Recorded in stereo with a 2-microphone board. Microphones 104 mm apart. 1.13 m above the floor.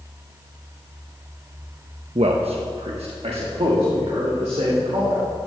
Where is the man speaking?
75° right (ahead or behind), 0.7 m; by 5.2 s 70° right (ahead or behind), 3 m.